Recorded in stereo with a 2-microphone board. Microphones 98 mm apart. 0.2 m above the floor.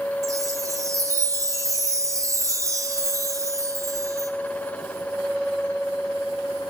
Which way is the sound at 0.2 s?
35° right (ahead or behind).